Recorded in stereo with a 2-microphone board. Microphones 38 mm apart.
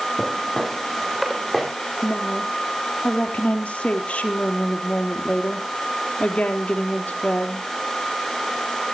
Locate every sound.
0.2 s footsteps: 5° left (ahead or behind), 9 m; by 1.7 s 5° right (ahead or behind), 8.5 m
2.0 s a woman speaking: 30° left (ahead or behind), 3.5 m